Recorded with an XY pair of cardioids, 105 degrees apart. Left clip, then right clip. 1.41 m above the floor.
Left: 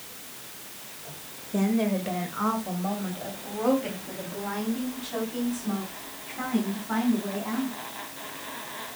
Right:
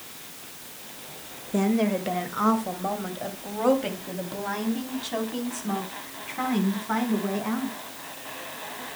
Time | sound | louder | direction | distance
1.5 | a woman speaking | right 2 dB | 20° right | 1.9 m